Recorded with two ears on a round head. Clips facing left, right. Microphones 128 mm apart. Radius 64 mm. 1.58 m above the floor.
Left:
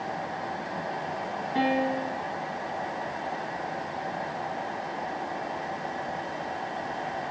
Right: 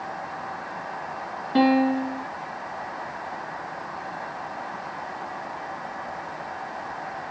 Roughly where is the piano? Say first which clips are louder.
Right 7 dB; right.